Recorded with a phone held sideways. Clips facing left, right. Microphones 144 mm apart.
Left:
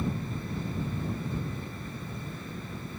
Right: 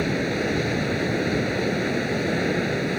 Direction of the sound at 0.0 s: 90° right.